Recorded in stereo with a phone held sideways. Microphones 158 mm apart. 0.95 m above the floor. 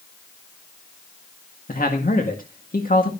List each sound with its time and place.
1.7 s a man speaking: 60° left (ahead or behind), 1.8 m